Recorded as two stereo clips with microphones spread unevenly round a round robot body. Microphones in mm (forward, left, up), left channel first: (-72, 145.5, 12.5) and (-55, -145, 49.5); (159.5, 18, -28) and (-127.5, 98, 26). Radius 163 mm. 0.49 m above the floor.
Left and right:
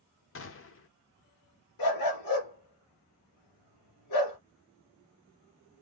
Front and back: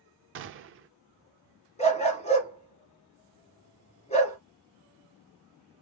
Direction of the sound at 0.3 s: 115° left.